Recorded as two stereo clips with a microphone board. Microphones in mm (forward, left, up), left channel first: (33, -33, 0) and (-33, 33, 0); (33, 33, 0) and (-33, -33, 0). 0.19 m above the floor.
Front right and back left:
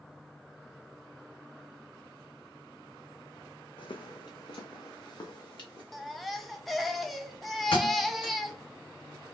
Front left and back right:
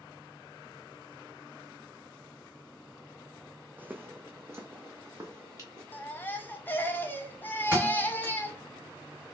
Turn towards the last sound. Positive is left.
turn(degrees=-70)